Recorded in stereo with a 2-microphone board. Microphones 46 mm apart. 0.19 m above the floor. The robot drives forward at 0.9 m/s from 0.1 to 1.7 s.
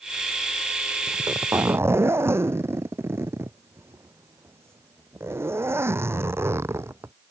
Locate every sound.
1.1 s a zipper: 75° right (ahead or behind); by 7.1 s 65° right (ahead or behind)